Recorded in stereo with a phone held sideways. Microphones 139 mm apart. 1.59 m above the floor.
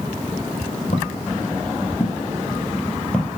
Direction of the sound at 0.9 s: 60° left (ahead or behind).